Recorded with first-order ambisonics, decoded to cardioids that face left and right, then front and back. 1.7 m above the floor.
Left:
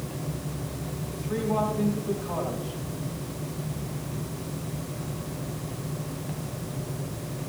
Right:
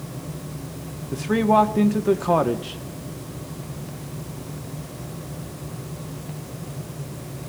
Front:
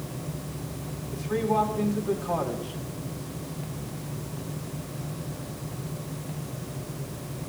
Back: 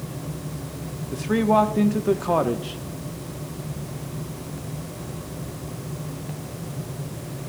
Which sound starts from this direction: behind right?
A man speaking, at 1.1 s.